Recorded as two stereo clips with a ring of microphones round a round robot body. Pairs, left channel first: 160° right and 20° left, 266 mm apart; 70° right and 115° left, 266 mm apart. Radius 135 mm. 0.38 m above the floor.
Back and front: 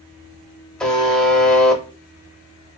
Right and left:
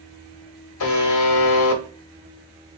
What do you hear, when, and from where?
0.8 s a buzzer: 70° right, 0.6 m